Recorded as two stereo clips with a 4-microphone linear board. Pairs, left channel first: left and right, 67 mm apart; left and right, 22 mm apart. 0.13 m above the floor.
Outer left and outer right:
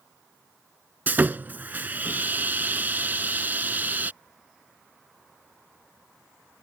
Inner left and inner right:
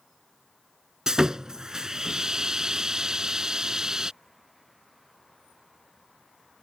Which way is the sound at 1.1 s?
30° right (ahead or behind).